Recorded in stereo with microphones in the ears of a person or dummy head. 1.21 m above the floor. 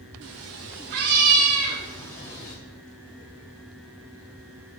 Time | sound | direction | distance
0.2 | a cat meowing | 55° right (ahead or behind) | 1.4 m